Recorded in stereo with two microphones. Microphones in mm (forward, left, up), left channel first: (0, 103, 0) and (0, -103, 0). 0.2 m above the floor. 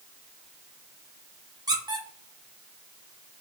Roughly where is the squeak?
Centre.